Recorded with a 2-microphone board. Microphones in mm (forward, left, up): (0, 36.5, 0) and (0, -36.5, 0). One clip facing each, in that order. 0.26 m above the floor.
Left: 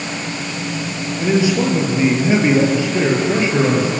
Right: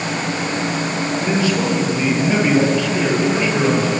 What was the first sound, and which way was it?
A man speaking, 20° left (ahead or behind).